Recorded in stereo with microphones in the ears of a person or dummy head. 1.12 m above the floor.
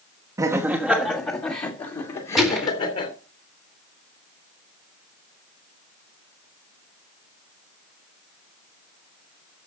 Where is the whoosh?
No whoosh in this recording.